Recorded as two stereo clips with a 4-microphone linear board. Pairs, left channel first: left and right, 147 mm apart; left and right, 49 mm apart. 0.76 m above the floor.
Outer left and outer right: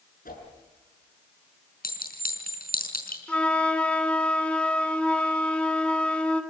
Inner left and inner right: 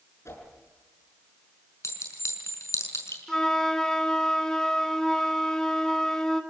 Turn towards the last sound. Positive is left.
turn(degrees=10)  # may be behind; listen again after turning